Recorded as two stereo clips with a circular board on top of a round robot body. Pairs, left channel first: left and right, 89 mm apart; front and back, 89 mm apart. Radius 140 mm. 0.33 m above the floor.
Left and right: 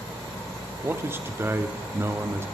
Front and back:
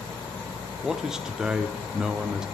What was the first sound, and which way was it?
A man speaking, 105° right.